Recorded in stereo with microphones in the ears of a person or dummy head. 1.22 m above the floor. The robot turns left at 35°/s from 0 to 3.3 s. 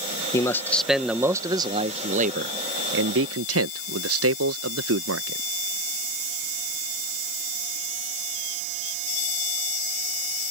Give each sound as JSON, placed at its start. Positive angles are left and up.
{"t": 0.3, "sound": "a man speaking", "azimuth_deg": 20}